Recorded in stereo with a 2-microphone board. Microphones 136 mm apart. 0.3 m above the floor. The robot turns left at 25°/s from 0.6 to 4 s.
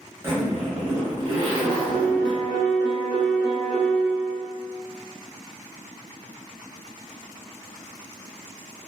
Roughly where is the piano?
Behind right.